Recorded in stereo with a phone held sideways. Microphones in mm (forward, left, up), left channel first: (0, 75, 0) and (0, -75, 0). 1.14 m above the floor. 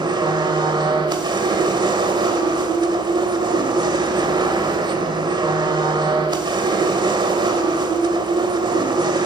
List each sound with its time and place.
0.0 s a machine running: 30° right (ahead or behind), 1.5 m